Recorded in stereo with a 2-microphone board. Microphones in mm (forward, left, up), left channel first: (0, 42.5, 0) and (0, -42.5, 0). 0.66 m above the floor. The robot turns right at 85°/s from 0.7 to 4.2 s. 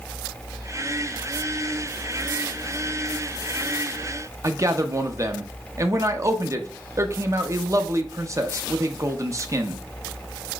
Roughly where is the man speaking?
Right.